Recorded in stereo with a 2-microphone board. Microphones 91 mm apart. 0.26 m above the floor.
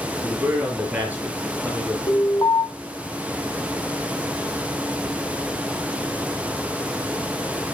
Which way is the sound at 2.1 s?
50° left (ahead or behind).